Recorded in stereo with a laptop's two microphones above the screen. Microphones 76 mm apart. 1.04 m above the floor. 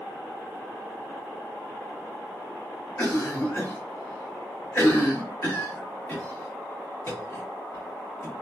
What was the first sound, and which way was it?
A cough, 30° left (ahead or behind).